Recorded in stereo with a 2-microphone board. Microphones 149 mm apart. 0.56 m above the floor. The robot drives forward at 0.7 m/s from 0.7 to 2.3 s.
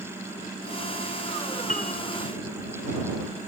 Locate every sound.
1.7 s a piano: 65° left (ahead or behind)